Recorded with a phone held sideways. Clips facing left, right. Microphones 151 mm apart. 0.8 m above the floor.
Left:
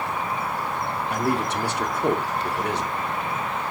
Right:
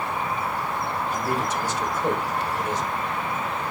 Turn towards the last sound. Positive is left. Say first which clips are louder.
# left 4 dB
turn(degrees=65)  # may be behind; listen again after turning